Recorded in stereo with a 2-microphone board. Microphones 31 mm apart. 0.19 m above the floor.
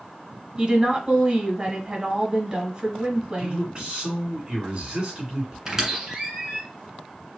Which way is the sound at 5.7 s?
20° right (ahead or behind).